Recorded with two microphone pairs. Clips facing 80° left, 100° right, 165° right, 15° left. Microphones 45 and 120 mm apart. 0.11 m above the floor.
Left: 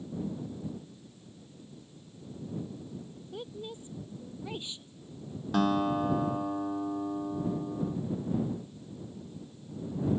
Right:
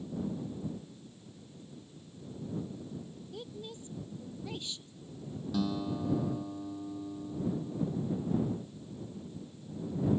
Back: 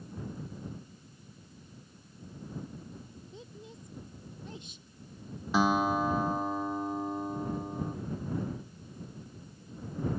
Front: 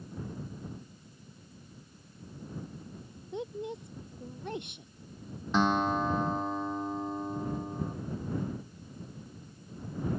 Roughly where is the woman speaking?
Ahead.